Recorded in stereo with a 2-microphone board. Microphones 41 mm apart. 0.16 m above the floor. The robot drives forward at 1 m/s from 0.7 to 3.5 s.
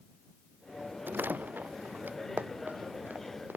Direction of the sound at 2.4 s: 40° right (ahead or behind).